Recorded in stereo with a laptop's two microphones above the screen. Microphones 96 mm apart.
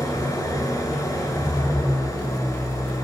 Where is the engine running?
35° left (ahead or behind), 7 m.